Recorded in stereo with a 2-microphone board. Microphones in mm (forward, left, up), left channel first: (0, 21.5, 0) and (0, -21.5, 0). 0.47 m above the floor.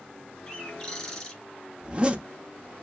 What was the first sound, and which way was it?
A bird, 20° left (ahead or behind).